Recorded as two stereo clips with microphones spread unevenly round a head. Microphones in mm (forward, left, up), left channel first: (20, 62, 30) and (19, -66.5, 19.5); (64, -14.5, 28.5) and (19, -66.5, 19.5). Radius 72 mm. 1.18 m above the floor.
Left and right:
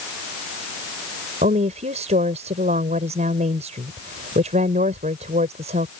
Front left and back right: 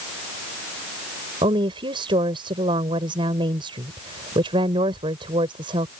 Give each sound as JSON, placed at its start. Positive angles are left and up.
{"t": 1.4, "sound": "a woman speaking", "azimuth_deg": -140}